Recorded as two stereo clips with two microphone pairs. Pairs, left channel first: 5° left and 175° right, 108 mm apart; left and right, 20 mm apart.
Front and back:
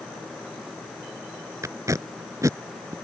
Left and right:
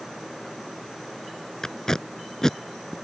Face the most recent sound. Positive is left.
turn(degrees=135)